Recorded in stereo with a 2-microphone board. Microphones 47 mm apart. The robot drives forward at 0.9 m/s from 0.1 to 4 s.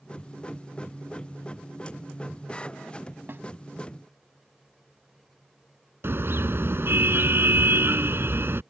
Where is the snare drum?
50° right (ahead or behind).